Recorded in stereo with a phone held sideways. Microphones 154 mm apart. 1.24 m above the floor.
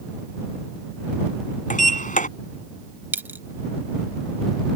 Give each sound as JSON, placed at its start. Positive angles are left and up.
{"t": 1.7, "sound": "a sliding door", "side_deg": 55}
{"t": 3.1, "sound": "a dropped coin", "side_deg": -10}